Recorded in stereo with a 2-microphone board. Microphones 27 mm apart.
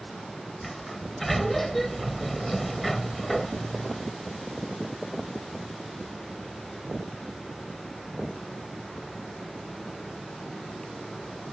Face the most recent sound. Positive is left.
turn(degrees=10)  # may be behind; listen again after turning